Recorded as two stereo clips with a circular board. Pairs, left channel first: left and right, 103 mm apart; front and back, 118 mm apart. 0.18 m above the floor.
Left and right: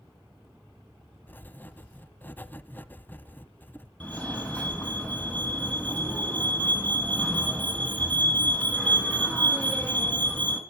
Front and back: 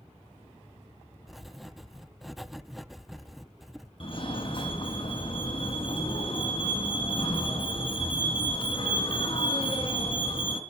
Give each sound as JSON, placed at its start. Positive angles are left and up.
{"t": 1.3, "sound": "writing", "azimuth_deg": 90, "distance_m": 0.6}
{"t": 4.0, "sound": "a fire alarm", "azimuth_deg": 15, "distance_m": 3.0}